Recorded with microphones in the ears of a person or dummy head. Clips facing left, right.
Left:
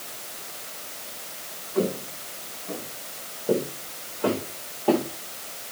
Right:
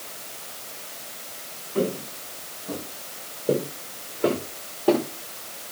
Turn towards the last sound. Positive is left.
turn(degrees=-20)  # may be behind; listen again after turning